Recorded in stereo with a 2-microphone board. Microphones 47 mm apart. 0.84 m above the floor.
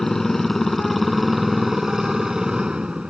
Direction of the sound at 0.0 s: 10° left (ahead or behind).